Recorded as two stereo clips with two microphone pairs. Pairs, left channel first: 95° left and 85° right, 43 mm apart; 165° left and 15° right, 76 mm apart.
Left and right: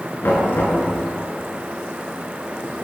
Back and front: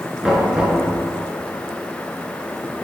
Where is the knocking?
60° left, 5.5 m.